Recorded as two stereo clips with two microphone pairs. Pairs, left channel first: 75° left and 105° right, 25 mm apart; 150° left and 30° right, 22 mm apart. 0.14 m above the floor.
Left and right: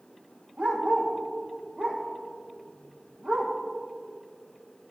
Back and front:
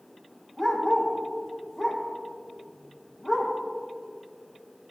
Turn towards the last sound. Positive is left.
turn(degrees=-120)